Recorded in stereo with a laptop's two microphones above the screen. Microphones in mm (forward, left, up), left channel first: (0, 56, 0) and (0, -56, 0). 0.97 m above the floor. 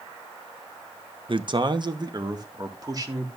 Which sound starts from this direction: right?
A man speaking, at 1.3 s.